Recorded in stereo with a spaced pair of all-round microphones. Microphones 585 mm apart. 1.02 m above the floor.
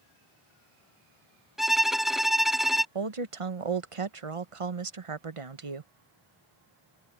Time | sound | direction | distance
1.6 | a violin | centre (ahead or behind) | ?
3.0 | a woman speaking | 60° right (ahead or behind) | ?